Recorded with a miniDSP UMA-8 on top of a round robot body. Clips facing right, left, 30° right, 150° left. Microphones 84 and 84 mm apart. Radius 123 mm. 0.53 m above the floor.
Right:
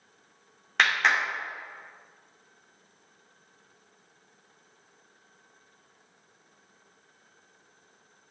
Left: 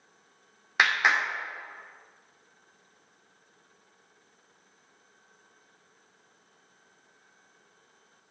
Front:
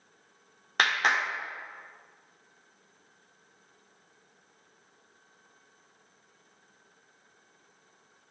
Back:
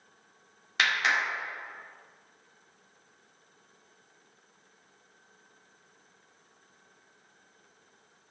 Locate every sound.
0.8 s a clap: 10° left, 1.9 m